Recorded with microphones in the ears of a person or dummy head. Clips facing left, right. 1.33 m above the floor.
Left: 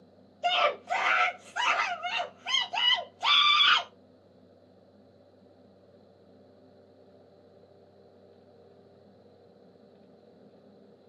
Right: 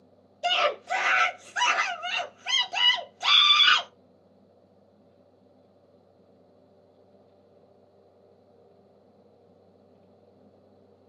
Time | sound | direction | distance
0.4 | a scream | 25° right (ahead or behind) | 0.5 m